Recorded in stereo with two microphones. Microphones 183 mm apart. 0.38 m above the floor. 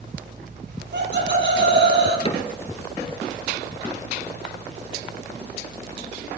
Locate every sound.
0.7 s laughter: 80° right, 7.5 m; by 2.1 s 85° right, 10 m
2.2 s a cupboard door: 35° left (ahead or behind), 1.8 m